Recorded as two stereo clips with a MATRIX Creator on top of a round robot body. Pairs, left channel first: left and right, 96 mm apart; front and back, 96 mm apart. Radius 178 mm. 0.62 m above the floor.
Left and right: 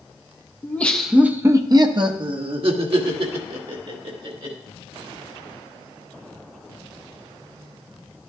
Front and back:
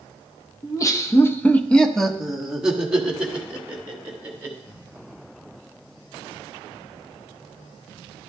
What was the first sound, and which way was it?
Laughter, 30° left.